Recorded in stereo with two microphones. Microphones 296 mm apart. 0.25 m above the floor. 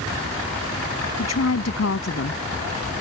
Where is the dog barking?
I don't hear a dog barking.